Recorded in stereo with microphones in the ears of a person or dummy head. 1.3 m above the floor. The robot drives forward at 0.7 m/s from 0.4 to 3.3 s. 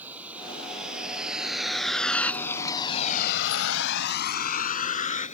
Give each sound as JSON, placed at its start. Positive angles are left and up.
{"t": 0.0, "sound": "a vehicle", "side_deg": -10}